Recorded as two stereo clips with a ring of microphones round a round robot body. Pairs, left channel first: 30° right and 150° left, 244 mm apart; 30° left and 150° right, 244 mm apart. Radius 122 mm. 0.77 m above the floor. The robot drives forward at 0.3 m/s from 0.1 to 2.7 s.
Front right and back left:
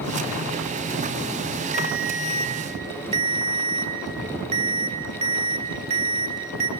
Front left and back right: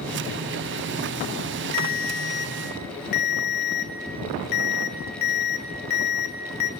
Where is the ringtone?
70° left, 1.3 m; by 6.7 s 80° left, 1.2 m.